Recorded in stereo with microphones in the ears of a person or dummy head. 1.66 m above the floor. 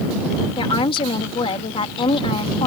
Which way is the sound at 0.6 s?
30° left (ahead or behind).